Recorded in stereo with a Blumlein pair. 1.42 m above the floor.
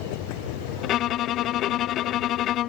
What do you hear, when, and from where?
0.8 s a violin: 35° left